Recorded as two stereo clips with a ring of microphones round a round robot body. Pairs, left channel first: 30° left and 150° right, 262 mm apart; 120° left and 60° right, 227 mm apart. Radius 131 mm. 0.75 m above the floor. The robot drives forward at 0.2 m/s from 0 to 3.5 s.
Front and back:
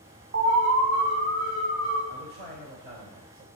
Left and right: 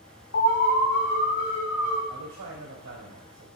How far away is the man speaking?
About 2.5 m.